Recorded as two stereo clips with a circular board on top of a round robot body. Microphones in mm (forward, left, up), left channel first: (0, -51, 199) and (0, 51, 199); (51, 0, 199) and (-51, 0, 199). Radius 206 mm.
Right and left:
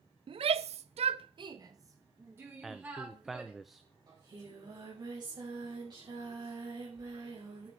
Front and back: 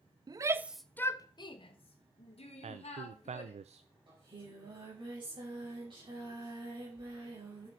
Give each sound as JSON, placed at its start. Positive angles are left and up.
{"t": 0.3, "sound": "a shout", "azimuth_deg": 130, "distance_m": 0.7}
{"t": 2.6, "sound": "a man speaking", "azimuth_deg": 180, "distance_m": 0.5}
{"t": 4.1, "sound": "singing", "azimuth_deg": 140, "distance_m": 5.5}